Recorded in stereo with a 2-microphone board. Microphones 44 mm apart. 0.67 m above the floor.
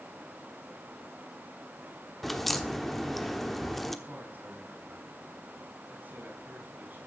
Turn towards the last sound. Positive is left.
turn(degrees=-45)  # may be behind; listen again after turning